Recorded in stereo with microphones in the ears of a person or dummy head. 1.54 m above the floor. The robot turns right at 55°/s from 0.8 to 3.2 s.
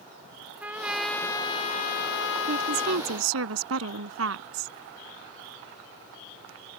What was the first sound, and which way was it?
A trumpet, 5° right.